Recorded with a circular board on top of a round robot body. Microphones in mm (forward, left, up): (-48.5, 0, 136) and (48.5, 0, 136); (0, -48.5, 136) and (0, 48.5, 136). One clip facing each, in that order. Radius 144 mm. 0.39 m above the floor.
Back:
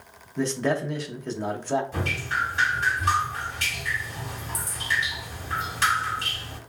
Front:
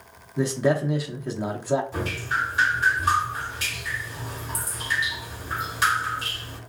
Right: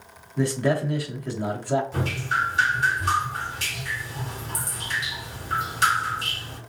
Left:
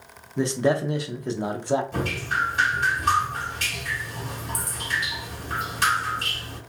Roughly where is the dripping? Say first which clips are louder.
Front 1 dB, even; left.